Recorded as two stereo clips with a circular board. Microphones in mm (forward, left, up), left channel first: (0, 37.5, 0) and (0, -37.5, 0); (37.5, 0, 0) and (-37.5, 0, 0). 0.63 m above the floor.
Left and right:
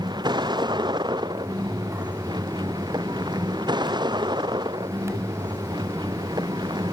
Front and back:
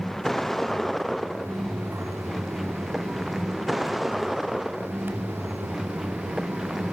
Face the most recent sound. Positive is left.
turn(degrees=-95)